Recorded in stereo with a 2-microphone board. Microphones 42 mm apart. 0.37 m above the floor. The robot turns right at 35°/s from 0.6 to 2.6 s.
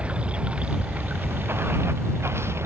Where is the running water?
150° right; by 2.6 s 80° right.